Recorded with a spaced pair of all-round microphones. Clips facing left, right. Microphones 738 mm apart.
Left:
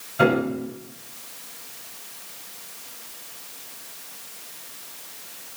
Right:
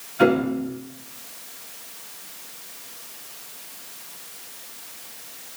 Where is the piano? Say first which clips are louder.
Right 2 dB; 70° left (ahead or behind), 5 m.